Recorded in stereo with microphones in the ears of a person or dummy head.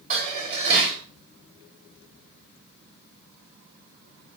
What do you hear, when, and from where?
0.1 s dishes clattering: 30° right (ahead or behind), 2.5 m